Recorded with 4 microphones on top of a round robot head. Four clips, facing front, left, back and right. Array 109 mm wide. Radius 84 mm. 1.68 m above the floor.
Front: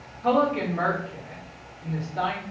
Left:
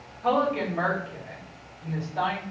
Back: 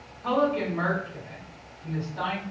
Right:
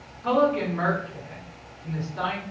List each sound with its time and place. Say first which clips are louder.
0.2 s a woman speaking: right 2 dB, front 2 dB; 50° left, 1.7 m